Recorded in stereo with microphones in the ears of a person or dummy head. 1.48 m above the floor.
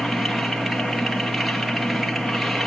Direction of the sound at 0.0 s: 5° right (ahead or behind).